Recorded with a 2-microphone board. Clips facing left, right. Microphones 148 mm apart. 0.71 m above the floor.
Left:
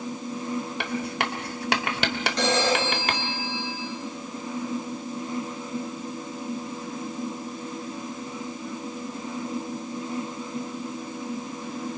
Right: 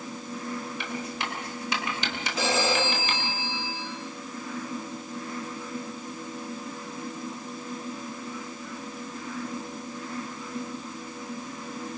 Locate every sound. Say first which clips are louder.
0.8 s writing: left 5 dB; 70° left (ahead or behind), 1.6 m
2.4 s a phone ringing: left 2 dB; 5° right (ahead or behind), 7 m